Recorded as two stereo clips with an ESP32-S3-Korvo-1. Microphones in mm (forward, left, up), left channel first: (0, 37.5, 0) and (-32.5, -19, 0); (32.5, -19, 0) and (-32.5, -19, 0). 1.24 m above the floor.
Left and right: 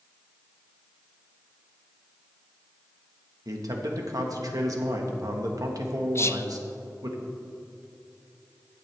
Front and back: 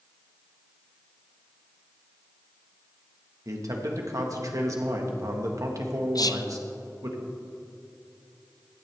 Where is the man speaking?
150° right, 1.6 m.